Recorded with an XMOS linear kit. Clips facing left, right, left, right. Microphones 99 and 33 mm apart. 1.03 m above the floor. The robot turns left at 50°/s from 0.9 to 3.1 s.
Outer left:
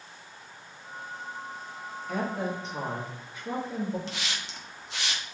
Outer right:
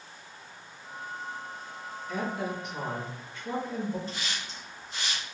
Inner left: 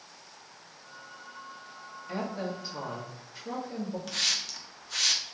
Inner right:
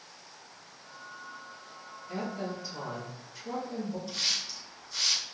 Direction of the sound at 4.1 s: 85° left.